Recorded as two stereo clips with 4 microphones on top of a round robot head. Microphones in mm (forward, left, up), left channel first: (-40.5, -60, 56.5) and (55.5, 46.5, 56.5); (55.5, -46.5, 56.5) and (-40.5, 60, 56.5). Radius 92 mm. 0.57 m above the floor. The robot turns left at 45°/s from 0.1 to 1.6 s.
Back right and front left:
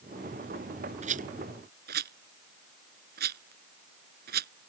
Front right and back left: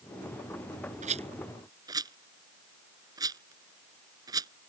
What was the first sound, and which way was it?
A rattle, 95° left.